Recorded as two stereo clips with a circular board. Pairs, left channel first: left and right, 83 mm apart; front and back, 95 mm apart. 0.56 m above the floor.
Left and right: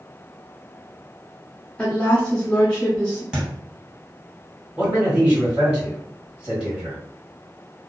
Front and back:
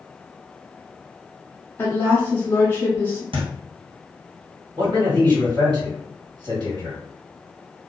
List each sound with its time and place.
1.8 s a woman speaking: 35° left, 0.9 m
3.3 s a thud: 170° right, 1.8 m
4.8 s a man speaking: 170° right, 2.0 m